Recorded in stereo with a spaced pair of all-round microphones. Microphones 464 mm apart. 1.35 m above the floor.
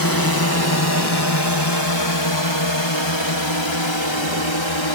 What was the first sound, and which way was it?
A drone, 45° left (ahead or behind).